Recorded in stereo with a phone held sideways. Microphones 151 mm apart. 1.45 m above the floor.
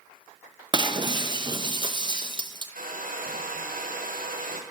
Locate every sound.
0.7 s breaking glass: 30° right (ahead or behind), 0.7 m
2.8 s a hair dryer: 65° right (ahead or behind), 0.9 m